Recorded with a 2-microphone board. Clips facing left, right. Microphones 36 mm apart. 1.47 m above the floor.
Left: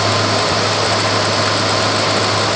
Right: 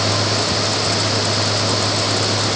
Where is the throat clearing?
I don't hear throat clearing.